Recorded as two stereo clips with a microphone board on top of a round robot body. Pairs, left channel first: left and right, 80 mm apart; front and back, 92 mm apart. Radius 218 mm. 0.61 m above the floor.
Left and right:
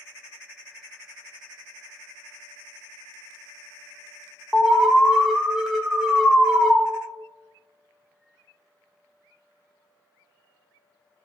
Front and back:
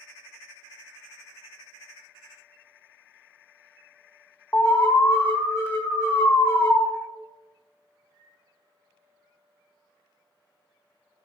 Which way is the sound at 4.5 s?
15° right.